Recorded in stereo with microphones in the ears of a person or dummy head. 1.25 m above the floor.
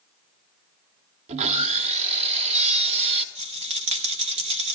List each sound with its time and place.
1.3 s sawing: 35° right (ahead or behind), 0.6 m
3.4 s a rattle: 30° right (ahead or behind), 0.5 m